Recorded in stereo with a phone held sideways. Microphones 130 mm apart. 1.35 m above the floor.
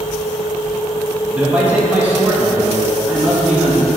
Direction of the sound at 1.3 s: 10° right (ahead or behind).